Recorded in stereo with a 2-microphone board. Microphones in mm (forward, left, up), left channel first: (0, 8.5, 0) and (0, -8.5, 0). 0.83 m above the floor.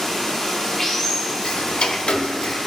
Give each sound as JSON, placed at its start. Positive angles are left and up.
{"t": 0.0, "sound": "running water", "side_deg": 30, "distance_m": 1.5}
{"t": 1.4, "sound": "ticking", "side_deg": 70, "distance_m": 0.5}